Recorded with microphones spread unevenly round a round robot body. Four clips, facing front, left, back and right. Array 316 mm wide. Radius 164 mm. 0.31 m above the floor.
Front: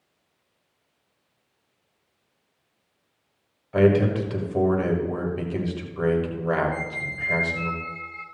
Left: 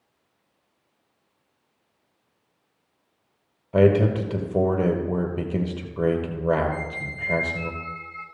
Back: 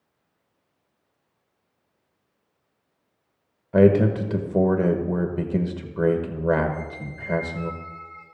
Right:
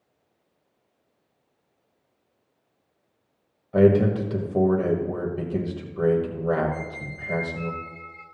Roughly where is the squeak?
Ahead left.